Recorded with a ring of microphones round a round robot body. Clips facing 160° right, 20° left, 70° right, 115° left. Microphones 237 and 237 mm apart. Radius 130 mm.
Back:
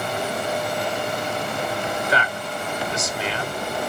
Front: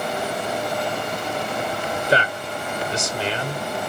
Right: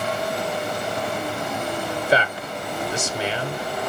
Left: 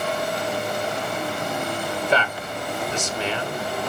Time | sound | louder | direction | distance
1.9 | a man speaking | front 3 dB, right 2 dB | 5° left | 0.9 m